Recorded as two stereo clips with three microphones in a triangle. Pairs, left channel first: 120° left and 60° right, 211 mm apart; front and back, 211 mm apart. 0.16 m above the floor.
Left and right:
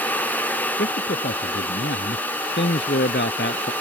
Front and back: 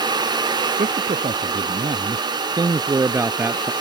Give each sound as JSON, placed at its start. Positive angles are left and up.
{"t": 0.8, "sound": "a man speaking", "azimuth_deg": 135}